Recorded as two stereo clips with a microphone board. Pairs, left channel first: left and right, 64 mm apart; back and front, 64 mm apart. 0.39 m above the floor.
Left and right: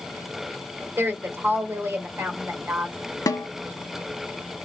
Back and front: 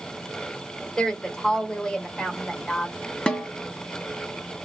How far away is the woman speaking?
About 1.2 m.